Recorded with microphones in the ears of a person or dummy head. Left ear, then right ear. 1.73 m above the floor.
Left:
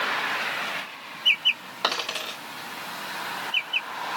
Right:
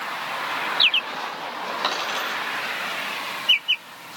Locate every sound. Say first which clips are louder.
1.8 s a dropped coin: even; 5° right (ahead or behind), 3 m